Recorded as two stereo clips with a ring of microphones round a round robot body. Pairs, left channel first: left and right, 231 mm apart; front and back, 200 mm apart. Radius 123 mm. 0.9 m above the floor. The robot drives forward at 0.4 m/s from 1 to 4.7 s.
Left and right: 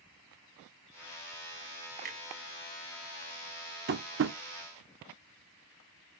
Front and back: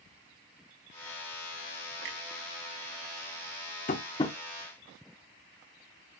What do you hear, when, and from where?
2.0 s a clunk: 140° right, 0.7 m; by 2.2 s 145° right, 0.8 m
3.9 s tapping: 50° right, 0.6 m; by 4.4 s 75° right, 0.5 m